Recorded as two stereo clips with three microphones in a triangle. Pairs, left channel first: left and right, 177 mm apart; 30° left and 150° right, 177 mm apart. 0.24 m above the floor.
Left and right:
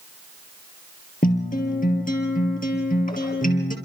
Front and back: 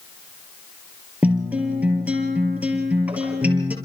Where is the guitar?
130° left, 5 m.